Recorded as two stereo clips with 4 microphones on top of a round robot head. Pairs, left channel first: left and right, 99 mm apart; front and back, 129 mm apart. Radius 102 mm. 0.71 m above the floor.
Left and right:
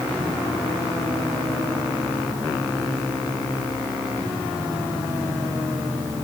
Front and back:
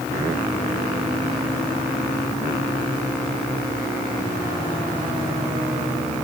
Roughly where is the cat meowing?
No cat meowing in this recording.